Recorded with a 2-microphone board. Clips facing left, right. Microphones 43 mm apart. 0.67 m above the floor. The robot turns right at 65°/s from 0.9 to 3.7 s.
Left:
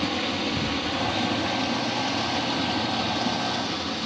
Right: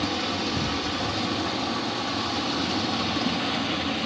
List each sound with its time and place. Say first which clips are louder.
0.0 s running water: left 1 dB; 40° left, 1.5 m; by 4.1 s 140° right, 1.5 m